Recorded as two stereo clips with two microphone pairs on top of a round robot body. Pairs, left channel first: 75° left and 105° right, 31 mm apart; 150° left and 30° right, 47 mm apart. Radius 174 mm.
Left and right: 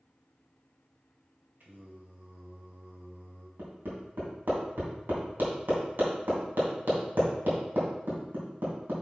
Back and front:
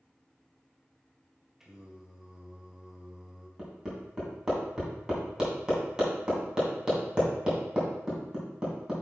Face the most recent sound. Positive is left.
turn(degrees=-105)